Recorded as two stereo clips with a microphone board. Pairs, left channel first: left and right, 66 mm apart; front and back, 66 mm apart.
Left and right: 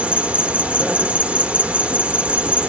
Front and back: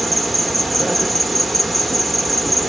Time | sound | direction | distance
0.0 | an insect | 90° right | 0.8 m